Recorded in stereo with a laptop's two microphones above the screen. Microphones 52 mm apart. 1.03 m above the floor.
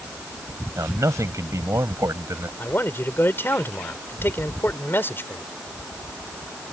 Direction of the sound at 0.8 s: 80° right.